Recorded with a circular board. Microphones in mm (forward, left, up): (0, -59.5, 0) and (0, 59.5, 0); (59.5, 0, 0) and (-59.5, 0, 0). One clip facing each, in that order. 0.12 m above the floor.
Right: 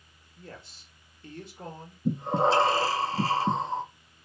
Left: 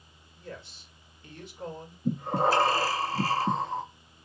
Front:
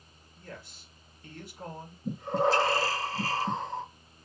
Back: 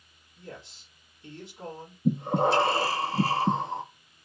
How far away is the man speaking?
About 3 m.